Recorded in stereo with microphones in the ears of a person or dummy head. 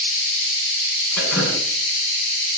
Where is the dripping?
5° left (ahead or behind), 6 m.